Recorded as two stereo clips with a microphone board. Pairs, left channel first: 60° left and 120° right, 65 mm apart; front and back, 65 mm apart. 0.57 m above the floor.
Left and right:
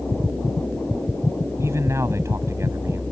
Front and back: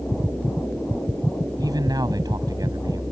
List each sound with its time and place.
1.6 s a man speaking: 165° right